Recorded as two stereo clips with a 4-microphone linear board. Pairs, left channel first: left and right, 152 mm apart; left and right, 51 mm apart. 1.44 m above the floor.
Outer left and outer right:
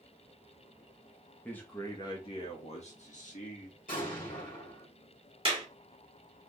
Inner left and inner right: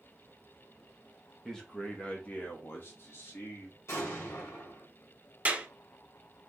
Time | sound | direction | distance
1.4 | a man speaking | 10° left (ahead or behind) | 1.3 m
3.9 | an explosion | 65° left (ahead or behind) | 2.5 m
5.5 | a clap | 35° right (ahead or behind) | 2 m